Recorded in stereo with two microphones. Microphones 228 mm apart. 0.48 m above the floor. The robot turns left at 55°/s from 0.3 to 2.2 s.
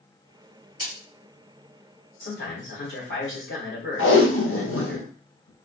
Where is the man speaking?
55° left (ahead or behind), 1.6 m.